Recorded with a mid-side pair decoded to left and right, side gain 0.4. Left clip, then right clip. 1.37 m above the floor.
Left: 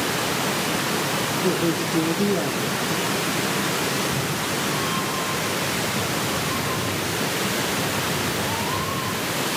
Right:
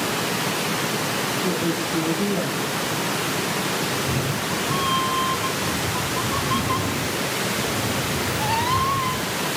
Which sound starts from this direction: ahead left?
A woman speaking, at 1.4 s.